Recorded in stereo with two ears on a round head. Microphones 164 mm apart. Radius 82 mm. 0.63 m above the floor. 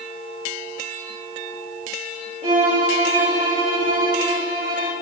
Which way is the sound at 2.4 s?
30° right (ahead or behind).